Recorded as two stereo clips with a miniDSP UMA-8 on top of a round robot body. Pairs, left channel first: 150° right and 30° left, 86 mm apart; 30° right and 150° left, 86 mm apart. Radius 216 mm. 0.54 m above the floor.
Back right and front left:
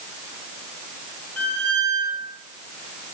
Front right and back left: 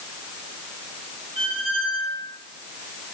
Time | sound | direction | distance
1.4 | a squeak | 135° left | 4 m